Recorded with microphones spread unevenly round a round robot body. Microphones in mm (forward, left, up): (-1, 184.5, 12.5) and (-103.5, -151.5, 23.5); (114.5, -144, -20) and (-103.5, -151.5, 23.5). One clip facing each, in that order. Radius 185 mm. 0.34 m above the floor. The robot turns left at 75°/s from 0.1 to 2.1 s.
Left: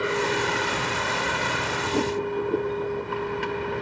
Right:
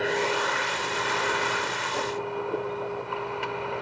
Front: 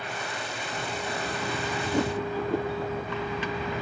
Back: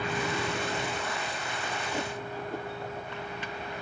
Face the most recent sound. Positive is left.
turn(degrees=5)